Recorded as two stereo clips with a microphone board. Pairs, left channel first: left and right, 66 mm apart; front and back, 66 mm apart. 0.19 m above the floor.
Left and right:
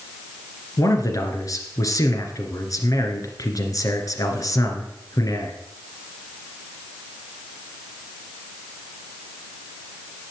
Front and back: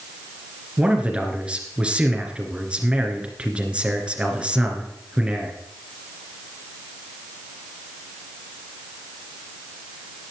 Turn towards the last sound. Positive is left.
turn(degrees=105)